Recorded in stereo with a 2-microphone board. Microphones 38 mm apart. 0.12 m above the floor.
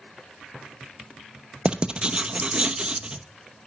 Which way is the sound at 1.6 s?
30° right (ahead or behind).